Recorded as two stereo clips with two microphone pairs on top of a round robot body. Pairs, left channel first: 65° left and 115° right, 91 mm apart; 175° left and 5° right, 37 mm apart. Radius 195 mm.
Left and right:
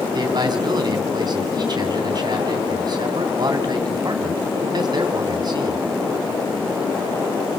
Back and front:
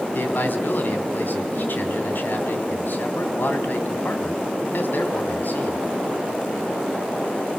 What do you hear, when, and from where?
0.1 s a man speaking: 155° right, 3 m